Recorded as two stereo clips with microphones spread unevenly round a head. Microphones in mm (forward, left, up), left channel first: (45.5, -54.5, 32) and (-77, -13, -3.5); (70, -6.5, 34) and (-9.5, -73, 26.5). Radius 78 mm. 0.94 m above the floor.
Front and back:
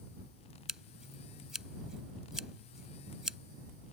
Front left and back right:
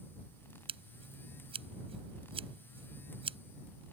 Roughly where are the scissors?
Right.